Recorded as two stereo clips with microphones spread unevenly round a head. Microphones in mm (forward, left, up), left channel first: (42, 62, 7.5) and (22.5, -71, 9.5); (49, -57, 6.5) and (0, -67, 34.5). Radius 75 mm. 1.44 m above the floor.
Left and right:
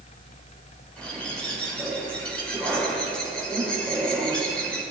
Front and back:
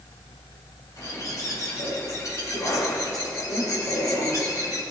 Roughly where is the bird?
Ahead.